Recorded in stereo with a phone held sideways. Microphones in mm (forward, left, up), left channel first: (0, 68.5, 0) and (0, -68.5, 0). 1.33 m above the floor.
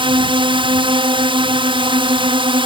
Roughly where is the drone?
Right.